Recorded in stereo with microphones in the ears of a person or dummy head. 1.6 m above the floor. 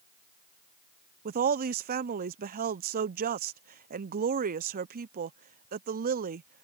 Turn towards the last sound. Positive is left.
turn(degrees=-45)  # may be behind; listen again after turning